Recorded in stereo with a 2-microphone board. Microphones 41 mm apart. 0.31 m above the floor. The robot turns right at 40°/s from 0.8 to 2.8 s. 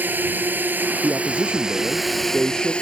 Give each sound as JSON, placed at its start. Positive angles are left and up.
{"t": 0.0, "sound": "a drone", "azimuth_deg": -55}
{"t": 1.0, "sound": "a man speaking", "azimuth_deg": -65}